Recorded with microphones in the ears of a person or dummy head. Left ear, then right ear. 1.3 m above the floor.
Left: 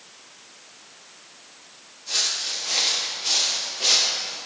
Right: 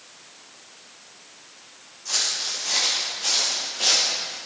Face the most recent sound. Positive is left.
turn(degrees=-60)  # may be behind; listen again after turning